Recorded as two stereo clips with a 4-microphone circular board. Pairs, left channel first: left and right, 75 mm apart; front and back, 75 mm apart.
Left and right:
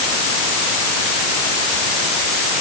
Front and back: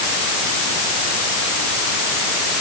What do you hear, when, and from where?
Only background noise.